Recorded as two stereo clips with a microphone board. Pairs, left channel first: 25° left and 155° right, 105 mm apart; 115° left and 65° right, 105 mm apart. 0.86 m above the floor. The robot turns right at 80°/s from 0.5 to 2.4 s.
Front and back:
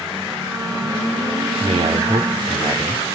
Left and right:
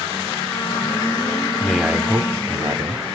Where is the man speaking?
170° right, 2.5 m; by 3.0 s 105° right, 2.5 m.